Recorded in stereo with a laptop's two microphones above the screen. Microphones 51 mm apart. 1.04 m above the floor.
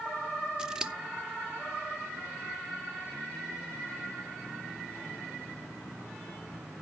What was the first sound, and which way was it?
Scissors, 15° right (ahead or behind).